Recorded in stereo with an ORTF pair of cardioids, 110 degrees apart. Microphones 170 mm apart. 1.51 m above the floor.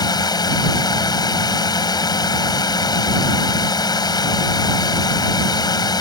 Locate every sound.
0.0 s a drone: 25° left